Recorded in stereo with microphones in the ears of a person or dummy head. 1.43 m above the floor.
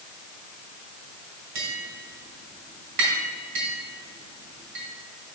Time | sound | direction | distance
1.6 | tapping | 65° right (ahead or behind) | 3 m